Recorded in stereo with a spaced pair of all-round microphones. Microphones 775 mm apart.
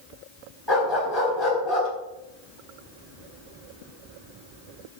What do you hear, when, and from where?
0.7 s a dog barking: 30° left (ahead or behind), 4.5 m